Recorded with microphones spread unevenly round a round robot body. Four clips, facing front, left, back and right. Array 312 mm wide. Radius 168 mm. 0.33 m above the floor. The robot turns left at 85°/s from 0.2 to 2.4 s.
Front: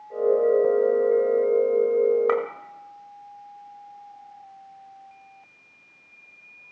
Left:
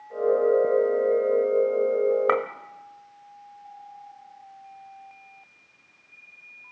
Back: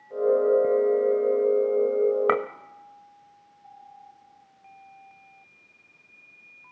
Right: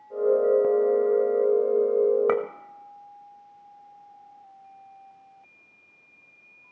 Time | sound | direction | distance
2.3 | a clink | 150° right | 1.4 m